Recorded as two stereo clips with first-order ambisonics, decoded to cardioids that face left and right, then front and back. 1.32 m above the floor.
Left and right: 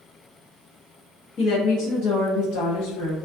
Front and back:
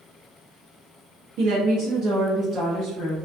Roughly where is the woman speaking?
Behind left.